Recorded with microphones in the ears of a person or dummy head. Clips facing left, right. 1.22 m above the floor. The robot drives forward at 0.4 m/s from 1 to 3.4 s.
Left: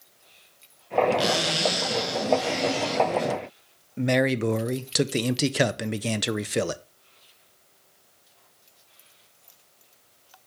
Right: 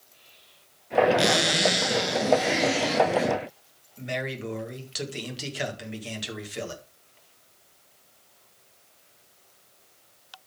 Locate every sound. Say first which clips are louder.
1.2 s a zipper: right 1 dB; 25° right (ahead or behind), 3 m; by 3.3 s 20° right (ahead or behind), 4 m
4.0 s a man speaking: left 10 dB; 60° left (ahead or behind), 0.8 m